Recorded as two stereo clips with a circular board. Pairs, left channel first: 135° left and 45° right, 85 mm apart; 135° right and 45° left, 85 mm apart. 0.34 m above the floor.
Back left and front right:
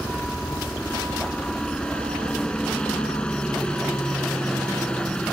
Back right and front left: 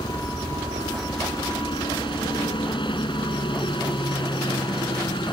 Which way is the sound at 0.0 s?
145° right.